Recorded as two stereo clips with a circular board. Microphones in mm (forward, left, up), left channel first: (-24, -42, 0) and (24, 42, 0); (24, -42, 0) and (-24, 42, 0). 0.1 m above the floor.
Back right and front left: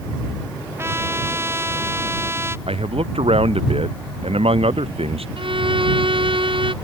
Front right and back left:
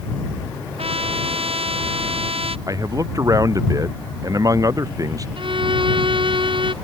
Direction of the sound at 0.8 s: 125° left.